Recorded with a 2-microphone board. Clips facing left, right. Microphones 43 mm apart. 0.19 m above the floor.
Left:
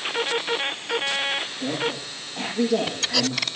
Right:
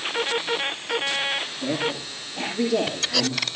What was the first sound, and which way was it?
A woman speaking, 35° left (ahead or behind).